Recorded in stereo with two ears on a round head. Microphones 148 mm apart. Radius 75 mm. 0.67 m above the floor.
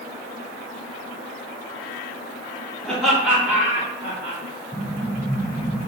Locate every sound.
2.8 s laughter: 5° left (ahead or behind), 1.1 m; by 4.4 s 25° right (ahead or behind), 1.2 m
4.7 s an explosion: 5° left (ahead or behind), 0.6 m